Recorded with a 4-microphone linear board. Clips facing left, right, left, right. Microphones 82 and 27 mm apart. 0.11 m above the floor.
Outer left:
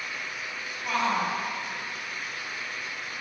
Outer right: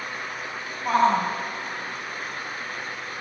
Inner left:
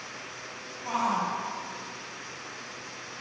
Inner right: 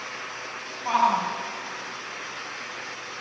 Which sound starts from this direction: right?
A shout, at 0.8 s.